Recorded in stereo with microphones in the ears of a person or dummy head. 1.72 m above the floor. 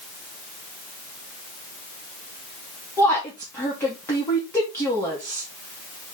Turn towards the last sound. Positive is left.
turn(degrees=15)  # may be behind; listen again after turning